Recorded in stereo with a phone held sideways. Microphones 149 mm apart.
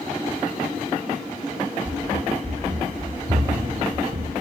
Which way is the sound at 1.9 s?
45° right (ahead or behind).